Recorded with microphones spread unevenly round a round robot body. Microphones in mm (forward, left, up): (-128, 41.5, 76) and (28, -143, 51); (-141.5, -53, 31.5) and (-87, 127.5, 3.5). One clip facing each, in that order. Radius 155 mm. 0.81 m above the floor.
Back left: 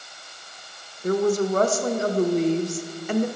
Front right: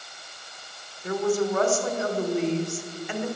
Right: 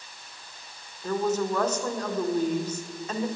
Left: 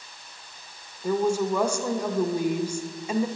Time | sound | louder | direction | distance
1.0 | a woman speaking | back left 3 dB, left 3 dB | 130° left | 0.6 m